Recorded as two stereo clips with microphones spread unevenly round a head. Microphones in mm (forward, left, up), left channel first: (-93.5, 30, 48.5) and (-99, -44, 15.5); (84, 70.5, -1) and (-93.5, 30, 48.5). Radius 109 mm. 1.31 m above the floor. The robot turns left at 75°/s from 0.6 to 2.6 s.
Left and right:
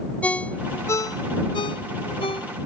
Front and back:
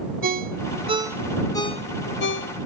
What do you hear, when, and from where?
0.2 s a ringtone: 155° left; by 2.5 s 10° left